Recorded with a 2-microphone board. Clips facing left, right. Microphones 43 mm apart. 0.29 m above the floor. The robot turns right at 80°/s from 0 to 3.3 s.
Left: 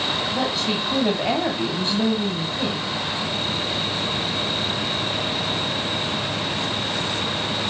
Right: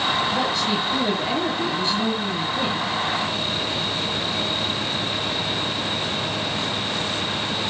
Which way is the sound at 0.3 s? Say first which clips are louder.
Right 1 dB; straight ahead.